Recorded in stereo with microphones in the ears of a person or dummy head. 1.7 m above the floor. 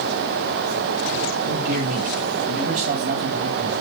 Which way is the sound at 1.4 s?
60° right (ahead or behind).